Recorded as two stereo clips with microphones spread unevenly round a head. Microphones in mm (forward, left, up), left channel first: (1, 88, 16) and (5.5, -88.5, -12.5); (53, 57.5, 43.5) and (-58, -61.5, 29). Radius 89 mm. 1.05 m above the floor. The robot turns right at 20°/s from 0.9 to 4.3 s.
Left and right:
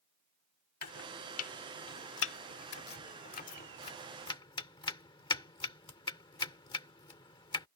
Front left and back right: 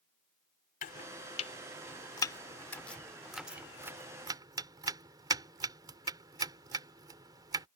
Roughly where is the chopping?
Left.